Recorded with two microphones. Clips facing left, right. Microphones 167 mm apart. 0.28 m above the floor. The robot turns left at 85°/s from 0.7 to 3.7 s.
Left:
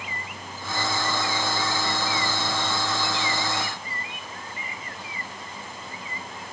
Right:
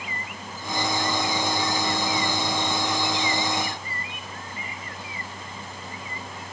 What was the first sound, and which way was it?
Only background noise.